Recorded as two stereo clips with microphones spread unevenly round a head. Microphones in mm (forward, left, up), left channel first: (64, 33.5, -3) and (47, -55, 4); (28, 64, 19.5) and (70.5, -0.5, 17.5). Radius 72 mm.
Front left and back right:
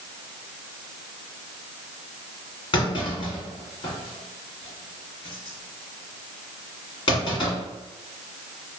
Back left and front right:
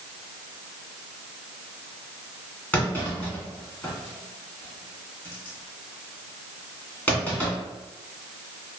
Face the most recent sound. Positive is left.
turn(degrees=60)